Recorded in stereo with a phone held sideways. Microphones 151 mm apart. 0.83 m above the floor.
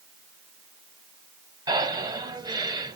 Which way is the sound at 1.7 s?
25° right (ahead or behind).